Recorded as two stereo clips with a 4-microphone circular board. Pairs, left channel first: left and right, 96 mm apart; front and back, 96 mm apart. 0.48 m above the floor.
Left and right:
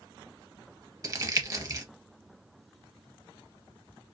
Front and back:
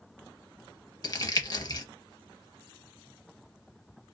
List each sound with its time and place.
1.0 s crumpling: 40° right, 0.6 m